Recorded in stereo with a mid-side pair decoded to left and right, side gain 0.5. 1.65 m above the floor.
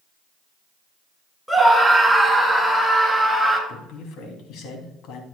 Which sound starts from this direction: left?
A man speaking, at 3.7 s.